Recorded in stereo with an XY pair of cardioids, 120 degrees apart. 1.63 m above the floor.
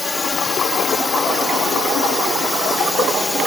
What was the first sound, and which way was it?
A drone, 20° left.